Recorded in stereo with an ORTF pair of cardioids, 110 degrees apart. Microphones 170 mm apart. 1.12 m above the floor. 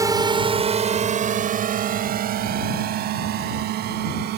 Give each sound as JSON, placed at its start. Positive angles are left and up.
{"t": 0.0, "sound": "a drone", "azimuth_deg": -20}